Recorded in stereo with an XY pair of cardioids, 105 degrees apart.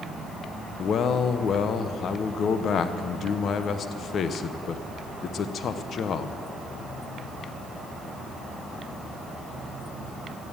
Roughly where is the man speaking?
Ahead left.